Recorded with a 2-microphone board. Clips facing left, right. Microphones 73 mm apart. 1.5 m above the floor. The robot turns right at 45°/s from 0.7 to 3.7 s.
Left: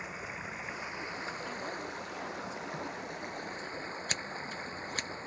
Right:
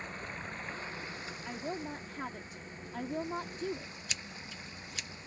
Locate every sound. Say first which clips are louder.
0.0 s running water: left 1 dB; 5° left; by 5.3 s 140° left
1.4 s a woman speaking: even; 165° right; by 3.9 s 65° right
4.1 s scissors: left 6 dB; 45° left (ahead or behind)